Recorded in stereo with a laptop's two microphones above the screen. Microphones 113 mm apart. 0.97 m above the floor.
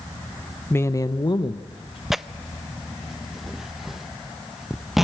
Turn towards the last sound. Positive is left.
turn(degrees=0)  # may be behind; listen again after turning